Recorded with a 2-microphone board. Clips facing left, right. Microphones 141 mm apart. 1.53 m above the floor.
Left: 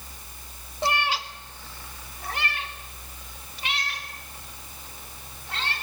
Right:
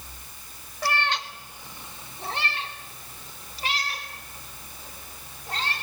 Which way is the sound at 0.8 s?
25° left (ahead or behind).